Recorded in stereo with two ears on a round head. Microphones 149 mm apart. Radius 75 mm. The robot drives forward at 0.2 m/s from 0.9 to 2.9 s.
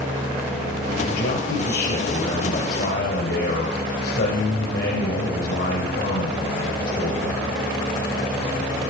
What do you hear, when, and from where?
1.1 s a man speaking: 65° left (ahead or behind), 3.5 m; by 7.6 s 60° left (ahead or behind), 3.5 m